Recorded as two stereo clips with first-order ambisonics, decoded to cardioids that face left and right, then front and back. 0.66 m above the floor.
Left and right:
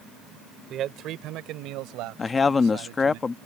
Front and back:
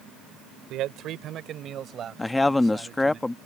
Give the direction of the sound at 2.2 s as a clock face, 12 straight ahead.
10 o'clock.